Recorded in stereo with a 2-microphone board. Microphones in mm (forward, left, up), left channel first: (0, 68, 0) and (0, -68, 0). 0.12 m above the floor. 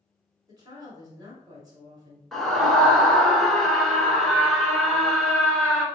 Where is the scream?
Centre (ahead or behind), 1.2 m.